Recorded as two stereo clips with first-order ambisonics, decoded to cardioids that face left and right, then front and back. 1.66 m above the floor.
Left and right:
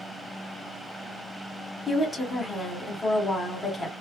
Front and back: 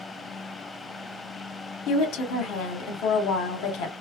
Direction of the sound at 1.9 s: 10° left.